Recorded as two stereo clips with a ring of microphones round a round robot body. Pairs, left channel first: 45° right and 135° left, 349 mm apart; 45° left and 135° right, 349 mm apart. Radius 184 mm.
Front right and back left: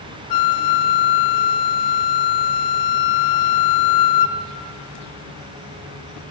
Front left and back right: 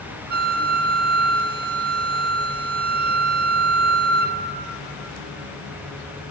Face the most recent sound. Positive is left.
turn(degrees=-75)